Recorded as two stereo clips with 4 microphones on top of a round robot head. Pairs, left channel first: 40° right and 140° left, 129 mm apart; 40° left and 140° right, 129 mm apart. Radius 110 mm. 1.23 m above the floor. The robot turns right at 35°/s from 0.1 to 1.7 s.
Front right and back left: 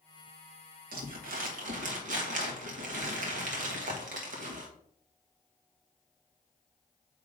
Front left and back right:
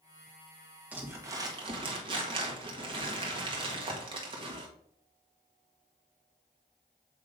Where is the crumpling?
140° left, 1.2 m; by 4.7 s 165° left, 1.2 m.